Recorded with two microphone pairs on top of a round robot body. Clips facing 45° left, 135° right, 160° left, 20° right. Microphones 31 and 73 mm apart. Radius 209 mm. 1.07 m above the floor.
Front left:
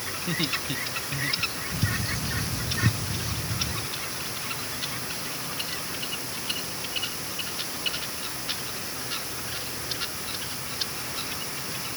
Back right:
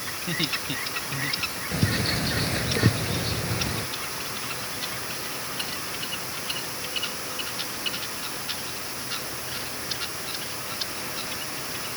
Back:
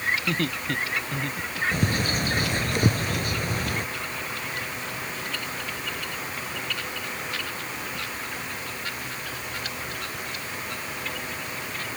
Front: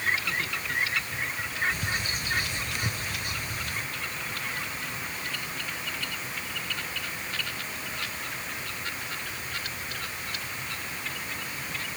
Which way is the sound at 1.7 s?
165° right.